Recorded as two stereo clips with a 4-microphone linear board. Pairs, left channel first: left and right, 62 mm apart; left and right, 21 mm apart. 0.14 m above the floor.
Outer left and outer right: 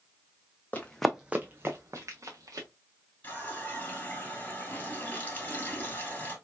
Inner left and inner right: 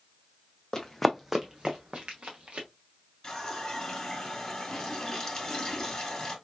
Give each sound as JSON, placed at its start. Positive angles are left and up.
{"t": 0.7, "sound": "running footsteps", "side_deg": 25, "distance_m": 0.6}
{"t": 3.2, "sound": "a running tap", "side_deg": 30, "distance_m": 1.6}